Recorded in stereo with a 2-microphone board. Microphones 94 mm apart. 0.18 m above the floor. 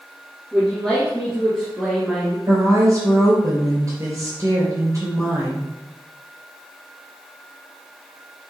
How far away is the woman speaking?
About 3 m.